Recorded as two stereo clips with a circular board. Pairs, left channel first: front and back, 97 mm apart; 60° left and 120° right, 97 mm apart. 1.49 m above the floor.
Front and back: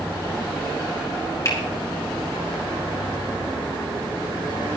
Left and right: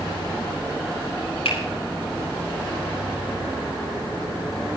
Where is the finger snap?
55° left, 7 m.